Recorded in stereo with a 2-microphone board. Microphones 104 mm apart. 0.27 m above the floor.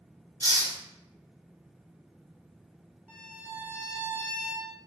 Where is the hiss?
40° right (ahead or behind), 1.4 m.